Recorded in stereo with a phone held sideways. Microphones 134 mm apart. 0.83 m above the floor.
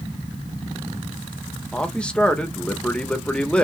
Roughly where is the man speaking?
Centre.